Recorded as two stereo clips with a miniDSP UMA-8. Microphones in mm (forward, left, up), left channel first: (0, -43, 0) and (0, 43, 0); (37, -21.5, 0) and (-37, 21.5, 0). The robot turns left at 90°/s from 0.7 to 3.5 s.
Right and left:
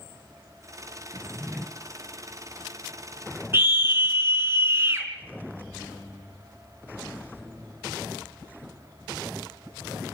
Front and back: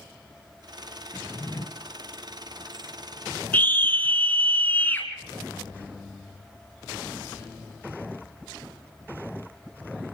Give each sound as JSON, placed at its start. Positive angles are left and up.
{"t": 1.1, "sound": "a drawer", "azimuth_deg": 50, "distance_m": 1.4}
{"t": 3.5, "sound": "a scream", "azimuth_deg": 35, "distance_m": 3.5}